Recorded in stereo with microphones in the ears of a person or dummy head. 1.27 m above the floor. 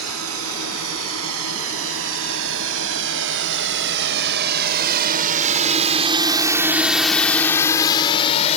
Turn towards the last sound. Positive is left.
turn(degrees=35)  # may be behind; listen again after turning